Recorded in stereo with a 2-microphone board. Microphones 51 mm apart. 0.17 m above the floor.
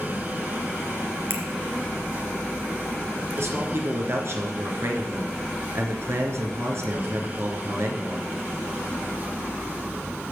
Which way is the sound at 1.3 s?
55° right (ahead or behind).